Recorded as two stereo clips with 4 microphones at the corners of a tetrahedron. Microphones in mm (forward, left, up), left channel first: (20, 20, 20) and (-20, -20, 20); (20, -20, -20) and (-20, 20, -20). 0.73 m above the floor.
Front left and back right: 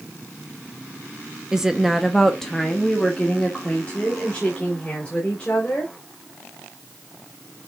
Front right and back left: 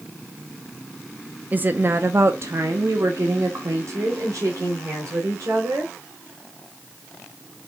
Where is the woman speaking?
155° left, 0.7 m; by 5.9 s 110° left, 3 m.